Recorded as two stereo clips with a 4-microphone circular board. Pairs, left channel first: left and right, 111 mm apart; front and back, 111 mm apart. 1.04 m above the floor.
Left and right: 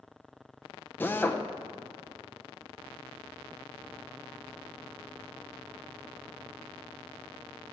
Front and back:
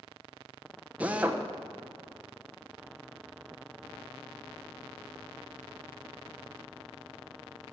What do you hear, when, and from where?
1.0 s a drill: 125° left, 0.7 m